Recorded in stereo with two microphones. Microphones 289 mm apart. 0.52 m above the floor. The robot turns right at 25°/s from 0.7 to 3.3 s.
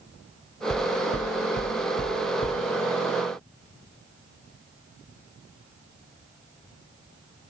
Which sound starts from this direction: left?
Knocking, at 0.7 s.